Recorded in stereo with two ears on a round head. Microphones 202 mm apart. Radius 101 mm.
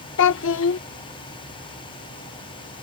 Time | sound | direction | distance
0.2 | a child speaking | 60° left (ahead or behind) | ?